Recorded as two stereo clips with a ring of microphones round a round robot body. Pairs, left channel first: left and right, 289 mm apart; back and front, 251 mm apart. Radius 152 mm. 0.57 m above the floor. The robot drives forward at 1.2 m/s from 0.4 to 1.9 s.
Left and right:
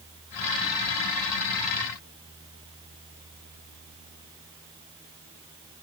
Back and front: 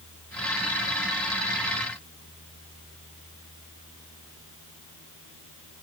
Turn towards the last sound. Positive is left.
No sound to turn to.